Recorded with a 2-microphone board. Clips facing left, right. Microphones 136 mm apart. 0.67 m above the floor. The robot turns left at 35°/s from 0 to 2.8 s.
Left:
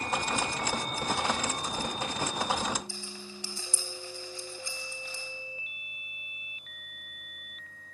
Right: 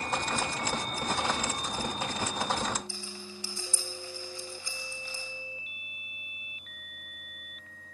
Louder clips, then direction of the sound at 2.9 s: Even; 25° left (ahead or behind).